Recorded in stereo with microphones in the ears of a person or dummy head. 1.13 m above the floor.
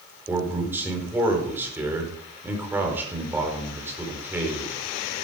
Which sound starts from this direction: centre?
A man speaking, at 0.3 s.